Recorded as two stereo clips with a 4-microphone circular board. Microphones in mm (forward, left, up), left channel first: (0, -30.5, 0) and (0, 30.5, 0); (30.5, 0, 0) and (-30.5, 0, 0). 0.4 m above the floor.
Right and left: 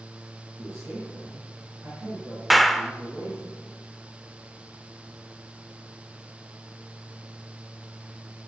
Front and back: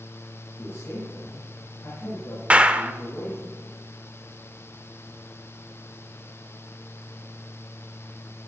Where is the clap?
175° left, 0.8 m.